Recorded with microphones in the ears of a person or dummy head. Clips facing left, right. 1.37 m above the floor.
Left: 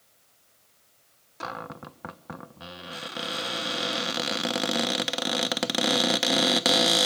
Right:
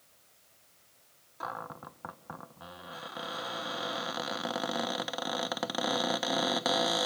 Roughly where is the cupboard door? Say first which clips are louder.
Left 4 dB; left.